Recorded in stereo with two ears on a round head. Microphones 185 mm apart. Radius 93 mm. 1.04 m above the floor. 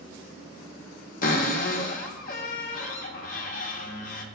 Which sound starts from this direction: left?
A cupboard door, at 1.2 s.